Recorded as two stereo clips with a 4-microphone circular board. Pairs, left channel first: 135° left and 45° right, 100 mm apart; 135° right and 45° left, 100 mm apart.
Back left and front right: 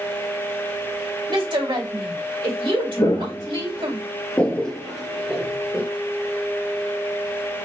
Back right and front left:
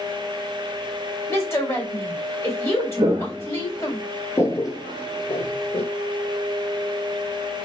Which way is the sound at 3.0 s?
95° left.